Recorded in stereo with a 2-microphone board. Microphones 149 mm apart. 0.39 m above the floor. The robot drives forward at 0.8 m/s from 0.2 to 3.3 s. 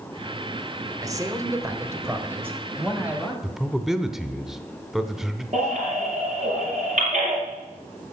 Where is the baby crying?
55° right (ahead or behind), 5 m.